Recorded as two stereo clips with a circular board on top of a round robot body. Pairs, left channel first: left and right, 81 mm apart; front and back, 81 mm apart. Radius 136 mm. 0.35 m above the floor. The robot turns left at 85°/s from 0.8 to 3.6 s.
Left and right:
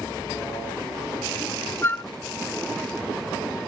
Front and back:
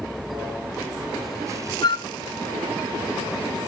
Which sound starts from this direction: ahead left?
A flute, at 1.8 s.